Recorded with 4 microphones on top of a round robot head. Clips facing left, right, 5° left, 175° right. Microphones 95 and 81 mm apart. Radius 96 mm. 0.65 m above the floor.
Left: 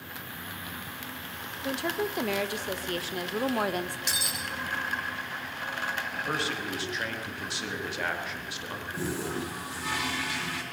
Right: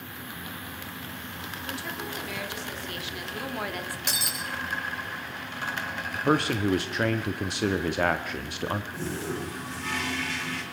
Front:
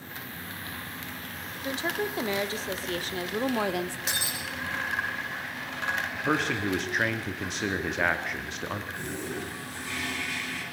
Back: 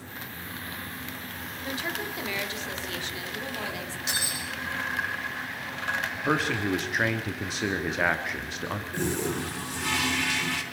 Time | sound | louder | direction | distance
1.6 | a woman speaking | left 7 dB, front 3 dB | 60° left | 2.5 m
4.1 | breaking glass | right 1 dB, even | 50° right | 7 m
6.2 | a man speaking | right 11 dB, back 1 dB | 90° right | 1.7 m
8.9 | a toilet flushing | even, back 6 dB | 170° left | 4.5 m